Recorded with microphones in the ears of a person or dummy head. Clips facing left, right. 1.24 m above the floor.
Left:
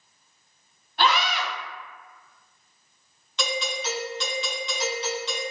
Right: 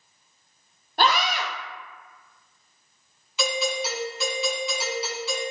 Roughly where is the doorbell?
Centre.